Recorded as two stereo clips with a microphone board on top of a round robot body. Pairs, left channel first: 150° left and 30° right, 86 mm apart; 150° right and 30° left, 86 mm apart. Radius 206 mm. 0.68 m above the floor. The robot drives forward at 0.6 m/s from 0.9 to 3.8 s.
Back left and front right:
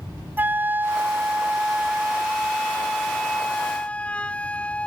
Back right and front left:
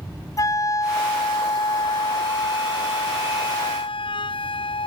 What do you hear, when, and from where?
0.4 s a flute: 100° right; by 4.9 s 135° right